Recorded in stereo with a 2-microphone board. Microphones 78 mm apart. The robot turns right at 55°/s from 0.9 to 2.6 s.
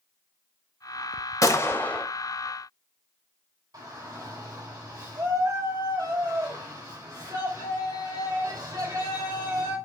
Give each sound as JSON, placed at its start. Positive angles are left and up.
{"t": 1.4, "sound": "a gunshot", "azimuth_deg": 135, "distance_m": 0.6}
{"t": 3.7, "sound": "a shout", "side_deg": -60, "distance_m": 2.5}